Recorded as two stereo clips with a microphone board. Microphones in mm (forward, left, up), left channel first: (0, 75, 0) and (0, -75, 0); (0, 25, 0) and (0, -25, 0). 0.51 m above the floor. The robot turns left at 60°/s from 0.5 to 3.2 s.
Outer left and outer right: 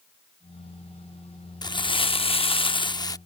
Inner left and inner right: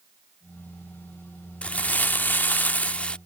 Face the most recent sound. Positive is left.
turn(degrees=35)